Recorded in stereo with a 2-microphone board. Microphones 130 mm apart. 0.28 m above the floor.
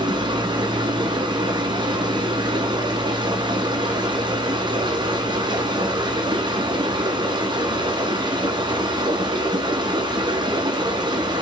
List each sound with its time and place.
0.0 s running water: 40° right (ahead or behind), 2.5 m